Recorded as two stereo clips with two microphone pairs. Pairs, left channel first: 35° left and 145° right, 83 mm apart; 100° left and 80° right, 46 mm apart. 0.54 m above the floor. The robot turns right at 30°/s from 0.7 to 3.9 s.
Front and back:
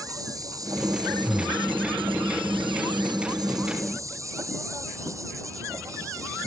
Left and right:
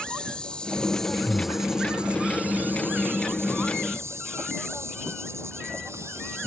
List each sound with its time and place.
0.0 s an insect: 170° left; by 6.5 s 95° right
1.2 s breathing: 10° right; by 1.6 s straight ahead